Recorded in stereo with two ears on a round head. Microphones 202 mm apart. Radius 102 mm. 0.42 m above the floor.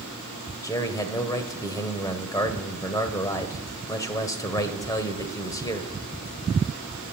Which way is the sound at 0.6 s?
15° left (ahead or behind).